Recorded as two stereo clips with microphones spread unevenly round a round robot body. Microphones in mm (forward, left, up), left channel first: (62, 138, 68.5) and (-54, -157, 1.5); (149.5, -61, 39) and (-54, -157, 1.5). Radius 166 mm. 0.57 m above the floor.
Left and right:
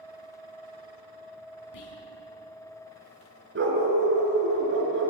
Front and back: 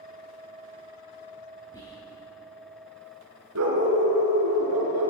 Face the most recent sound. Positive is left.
turn(degrees=-170)